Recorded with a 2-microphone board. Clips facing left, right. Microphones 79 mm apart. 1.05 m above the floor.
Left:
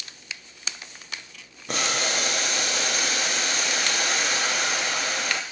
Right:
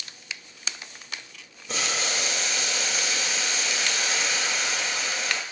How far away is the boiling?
About 0.7 m.